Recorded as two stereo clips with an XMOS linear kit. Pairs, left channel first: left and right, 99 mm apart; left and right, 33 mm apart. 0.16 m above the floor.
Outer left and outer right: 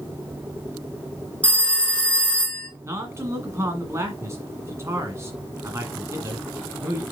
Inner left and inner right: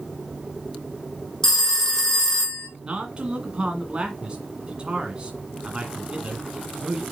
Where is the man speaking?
30° right (ahead or behind), 1.9 m.